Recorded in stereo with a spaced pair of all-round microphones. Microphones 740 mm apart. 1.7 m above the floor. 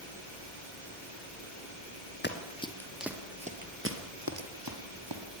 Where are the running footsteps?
15° left (ahead or behind), 2 m; by 5.2 s 35° right (ahead or behind), 3 m.